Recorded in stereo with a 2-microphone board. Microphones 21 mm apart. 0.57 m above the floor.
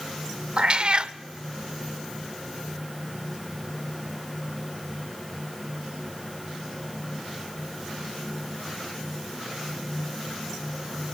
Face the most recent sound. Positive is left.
turn(degrees=-45)  # may be behind; listen again after turning